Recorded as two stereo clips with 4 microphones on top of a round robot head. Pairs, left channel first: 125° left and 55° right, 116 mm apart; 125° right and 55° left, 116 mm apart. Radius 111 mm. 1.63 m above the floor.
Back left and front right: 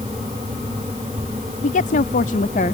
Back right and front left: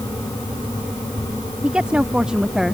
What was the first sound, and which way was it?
A woman speaking, 135° left.